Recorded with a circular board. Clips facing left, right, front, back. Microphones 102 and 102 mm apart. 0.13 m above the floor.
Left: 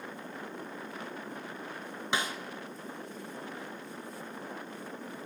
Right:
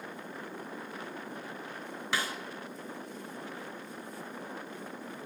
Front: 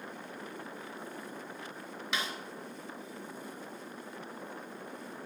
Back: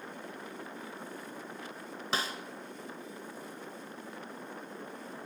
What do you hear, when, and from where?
2.1 s a snare drum: 150° left, 0.9 m